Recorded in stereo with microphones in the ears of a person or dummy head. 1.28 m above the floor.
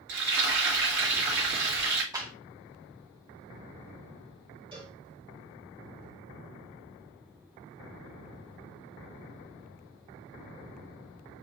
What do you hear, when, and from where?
0.1 s frying: 55° right (ahead or behind), 2.0 m
2.1 s a clap: 15° right (ahead or behind), 1.3 m
4.7 s a cowbell: 25° right (ahead or behind), 2.5 m